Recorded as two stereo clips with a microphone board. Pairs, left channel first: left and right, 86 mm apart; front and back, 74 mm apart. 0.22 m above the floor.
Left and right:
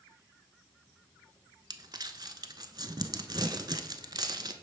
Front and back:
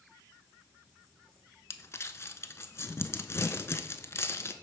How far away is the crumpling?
About 0.5 m.